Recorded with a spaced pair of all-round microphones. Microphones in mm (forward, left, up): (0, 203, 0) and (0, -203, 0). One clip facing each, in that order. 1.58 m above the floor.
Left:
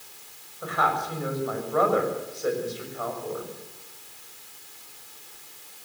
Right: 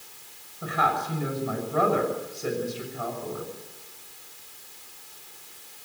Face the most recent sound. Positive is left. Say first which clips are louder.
# even
turn(degrees=-40)  # may be behind; listen again after turning